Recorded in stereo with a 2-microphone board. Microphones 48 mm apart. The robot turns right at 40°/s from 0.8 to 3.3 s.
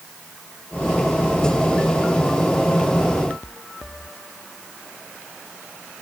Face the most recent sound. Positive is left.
No sound to turn to.